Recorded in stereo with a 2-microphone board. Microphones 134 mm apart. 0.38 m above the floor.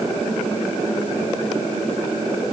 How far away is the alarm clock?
I don't hear an alarm clock.